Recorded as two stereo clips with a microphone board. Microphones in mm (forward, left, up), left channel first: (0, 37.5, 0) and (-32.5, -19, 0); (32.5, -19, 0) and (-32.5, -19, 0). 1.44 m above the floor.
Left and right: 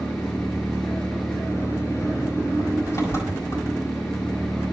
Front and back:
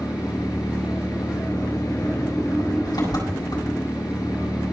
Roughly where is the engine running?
Ahead.